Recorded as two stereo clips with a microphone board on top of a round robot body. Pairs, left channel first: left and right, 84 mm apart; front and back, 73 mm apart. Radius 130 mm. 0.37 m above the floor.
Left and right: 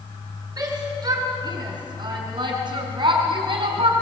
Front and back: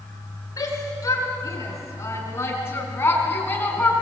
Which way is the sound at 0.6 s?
45° right.